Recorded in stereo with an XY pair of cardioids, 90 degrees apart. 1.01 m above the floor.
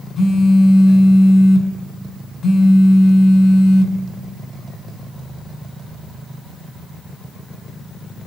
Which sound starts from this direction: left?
A phone buzzing, at 0.2 s.